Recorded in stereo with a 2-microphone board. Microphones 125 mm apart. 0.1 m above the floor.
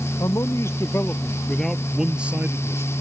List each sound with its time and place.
0.2 s a man speaking: 30° left (ahead or behind); by 3.0 s 25° right (ahead or behind)